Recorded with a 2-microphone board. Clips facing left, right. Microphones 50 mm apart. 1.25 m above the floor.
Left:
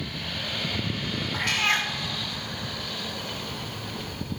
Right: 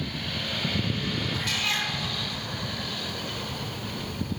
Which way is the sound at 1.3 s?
50° left (ahead or behind).